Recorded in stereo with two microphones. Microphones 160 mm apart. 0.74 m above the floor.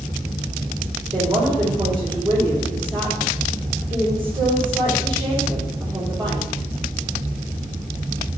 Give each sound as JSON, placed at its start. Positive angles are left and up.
{"t": 1.1, "sound": "a woman speaking", "side_deg": -35, "distance_m": 3.5}